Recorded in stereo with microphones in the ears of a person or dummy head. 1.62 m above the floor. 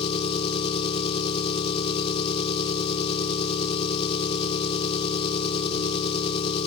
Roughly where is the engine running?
Left.